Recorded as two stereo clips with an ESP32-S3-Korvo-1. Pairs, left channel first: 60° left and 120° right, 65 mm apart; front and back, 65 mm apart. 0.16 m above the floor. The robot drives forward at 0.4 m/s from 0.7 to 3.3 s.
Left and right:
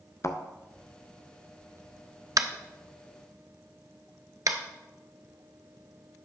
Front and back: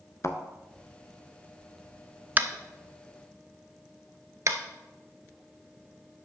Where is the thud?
30° left, 0.6 m.